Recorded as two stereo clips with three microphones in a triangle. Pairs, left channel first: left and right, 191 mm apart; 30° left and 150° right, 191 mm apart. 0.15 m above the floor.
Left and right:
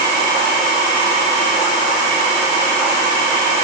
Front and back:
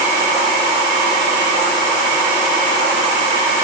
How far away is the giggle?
No giggle in this recording.